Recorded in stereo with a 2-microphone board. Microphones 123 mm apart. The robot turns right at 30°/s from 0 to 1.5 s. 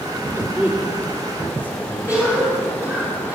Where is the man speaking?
20° right (ahead or behind), 3.5 m; by 2.2 s 15° left (ahead or behind), 3.5 m.